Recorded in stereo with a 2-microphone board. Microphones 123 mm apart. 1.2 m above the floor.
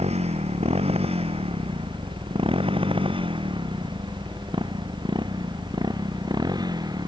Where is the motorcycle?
55° right (ahead or behind); by 7.1 s 30° right (ahead or behind).